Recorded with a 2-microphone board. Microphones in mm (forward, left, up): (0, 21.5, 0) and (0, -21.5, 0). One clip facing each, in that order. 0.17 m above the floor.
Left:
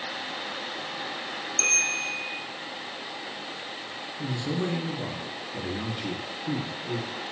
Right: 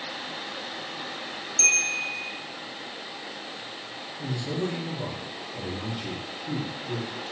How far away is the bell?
About 1.4 m.